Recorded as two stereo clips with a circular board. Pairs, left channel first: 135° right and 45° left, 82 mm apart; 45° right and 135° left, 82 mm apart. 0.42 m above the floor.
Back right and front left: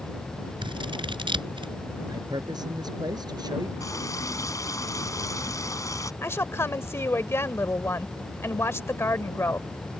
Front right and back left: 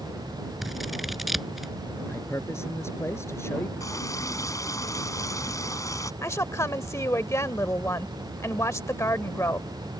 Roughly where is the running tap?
Right.